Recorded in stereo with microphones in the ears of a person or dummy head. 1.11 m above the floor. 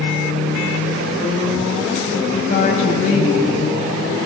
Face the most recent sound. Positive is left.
turn(degrees=35)  # may be behind; listen again after turning